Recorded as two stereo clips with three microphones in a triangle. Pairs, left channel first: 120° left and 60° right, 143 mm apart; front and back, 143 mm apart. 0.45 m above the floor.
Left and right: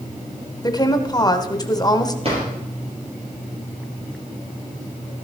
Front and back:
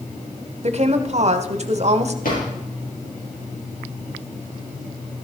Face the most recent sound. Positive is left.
turn(degrees=-15)